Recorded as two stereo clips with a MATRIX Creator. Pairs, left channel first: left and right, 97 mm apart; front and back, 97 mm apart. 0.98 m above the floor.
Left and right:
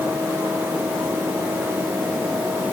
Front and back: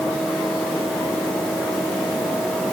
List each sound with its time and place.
Only background noise.